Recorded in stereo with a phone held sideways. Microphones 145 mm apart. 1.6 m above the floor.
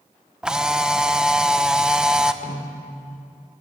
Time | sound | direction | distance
0.4 | a camera shutter | 5° right (ahead or behind) | 1.1 m
2.4 | a snare drum | 55° left (ahead or behind) | 6.5 m